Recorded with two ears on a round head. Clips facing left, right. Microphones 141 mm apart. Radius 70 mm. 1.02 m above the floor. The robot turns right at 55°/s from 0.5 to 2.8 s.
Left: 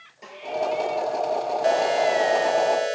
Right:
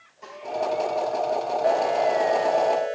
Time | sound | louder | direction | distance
0.2 | a snare drum | right 1 dB | 20° left (ahead or behind) | 5.5 m